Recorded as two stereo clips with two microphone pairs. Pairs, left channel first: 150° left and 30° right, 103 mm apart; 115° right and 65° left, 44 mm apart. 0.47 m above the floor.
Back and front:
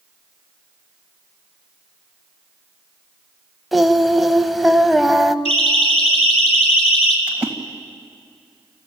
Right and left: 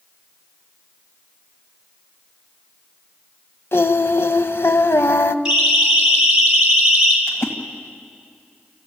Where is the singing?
120° right, 0.7 m.